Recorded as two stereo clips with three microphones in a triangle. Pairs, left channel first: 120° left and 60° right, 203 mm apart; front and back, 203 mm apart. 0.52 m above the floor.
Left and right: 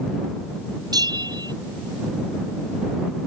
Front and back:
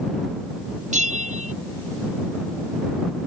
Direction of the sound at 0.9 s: 130° right.